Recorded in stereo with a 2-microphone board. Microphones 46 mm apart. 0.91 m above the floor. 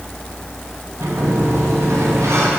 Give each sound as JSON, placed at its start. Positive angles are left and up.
{"t": 1.0, "sound": "a sliding door", "side_deg": -80, "distance_m": 4.5}